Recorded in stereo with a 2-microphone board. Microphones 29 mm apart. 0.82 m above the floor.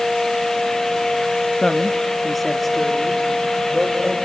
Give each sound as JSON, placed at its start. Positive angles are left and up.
{"t": 1.6, "sound": "a woman speaking", "side_deg": 25, "distance_m": 0.5}